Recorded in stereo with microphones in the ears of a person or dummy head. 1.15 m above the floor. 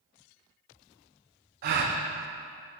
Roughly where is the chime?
I don't hear a chime.